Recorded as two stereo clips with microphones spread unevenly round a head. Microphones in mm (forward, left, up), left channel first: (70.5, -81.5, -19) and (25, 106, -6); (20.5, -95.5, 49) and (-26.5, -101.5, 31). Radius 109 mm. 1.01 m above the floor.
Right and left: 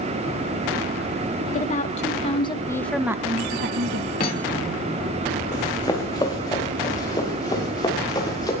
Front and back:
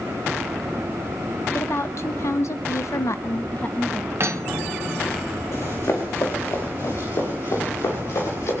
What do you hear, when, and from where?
1.5 s a woman speaking: 30° right, 1.7 m; by 4.1 s 105° left, 1.0 m
4.2 s cutlery clinking: 135° right, 1.5 m
5.5 s running footsteps: 10° right, 4.5 m; by 8.5 s 5° right, 7.5 m